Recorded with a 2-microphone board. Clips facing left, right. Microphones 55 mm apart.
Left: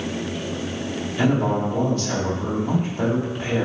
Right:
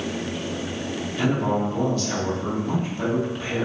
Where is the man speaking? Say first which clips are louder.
Left 2 dB; 35° left (ahead or behind), 1.7 m.